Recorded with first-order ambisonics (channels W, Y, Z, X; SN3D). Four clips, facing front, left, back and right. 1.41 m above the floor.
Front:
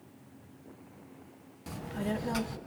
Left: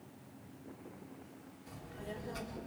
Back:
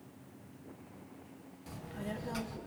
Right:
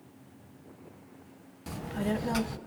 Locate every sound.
1.7 s a child speaking: 65° right, 0.5 m